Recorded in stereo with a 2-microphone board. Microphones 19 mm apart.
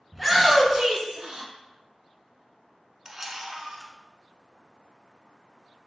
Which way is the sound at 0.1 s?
5° right (ahead or behind).